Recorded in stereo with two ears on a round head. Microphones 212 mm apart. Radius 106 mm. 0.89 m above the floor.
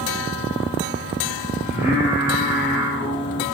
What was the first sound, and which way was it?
Singing, 10° right (ahead or behind).